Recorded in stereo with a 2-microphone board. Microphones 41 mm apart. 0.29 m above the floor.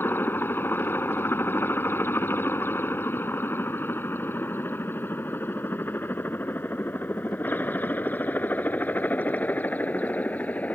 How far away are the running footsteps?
No running footsteps in this recording.